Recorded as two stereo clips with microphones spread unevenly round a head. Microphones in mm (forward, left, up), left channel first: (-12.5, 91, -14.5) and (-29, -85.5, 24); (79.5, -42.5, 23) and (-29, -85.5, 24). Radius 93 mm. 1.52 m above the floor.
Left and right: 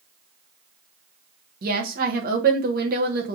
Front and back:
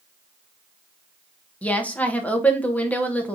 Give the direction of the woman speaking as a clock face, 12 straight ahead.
2 o'clock.